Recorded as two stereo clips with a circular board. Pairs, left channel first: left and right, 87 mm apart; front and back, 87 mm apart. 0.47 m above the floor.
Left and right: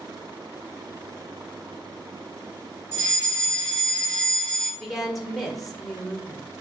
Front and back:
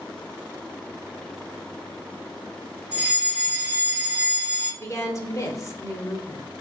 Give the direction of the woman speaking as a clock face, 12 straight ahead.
12 o'clock.